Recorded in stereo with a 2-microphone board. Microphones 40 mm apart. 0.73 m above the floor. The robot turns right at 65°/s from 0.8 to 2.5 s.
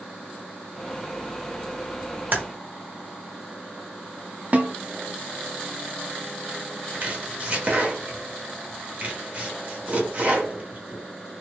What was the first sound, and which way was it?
Typing on a keyboard, 55° right (ahead or behind).